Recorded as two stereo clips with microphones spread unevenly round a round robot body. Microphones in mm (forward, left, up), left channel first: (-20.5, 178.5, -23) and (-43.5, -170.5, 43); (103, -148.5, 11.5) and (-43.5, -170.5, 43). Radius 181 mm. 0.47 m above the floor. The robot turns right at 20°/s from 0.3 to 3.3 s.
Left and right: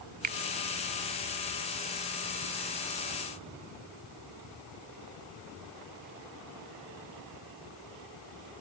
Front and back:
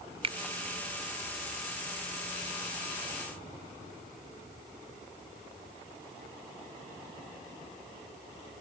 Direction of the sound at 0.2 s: 155° right.